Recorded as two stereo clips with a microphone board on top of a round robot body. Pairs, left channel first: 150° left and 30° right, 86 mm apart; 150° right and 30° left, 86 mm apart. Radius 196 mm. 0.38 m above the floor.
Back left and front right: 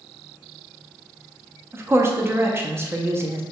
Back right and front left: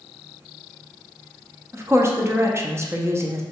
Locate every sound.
1.7 s a woman speaking: 5° left, 0.9 m